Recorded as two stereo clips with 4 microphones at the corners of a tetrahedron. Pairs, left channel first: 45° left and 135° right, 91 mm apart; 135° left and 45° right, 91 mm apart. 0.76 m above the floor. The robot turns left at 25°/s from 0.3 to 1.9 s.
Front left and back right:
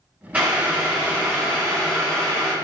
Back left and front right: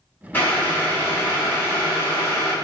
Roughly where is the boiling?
Behind.